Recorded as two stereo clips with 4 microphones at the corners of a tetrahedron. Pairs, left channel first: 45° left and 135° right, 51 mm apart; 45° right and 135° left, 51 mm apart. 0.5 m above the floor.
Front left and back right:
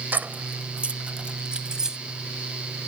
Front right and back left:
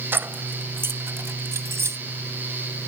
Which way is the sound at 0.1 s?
175° left.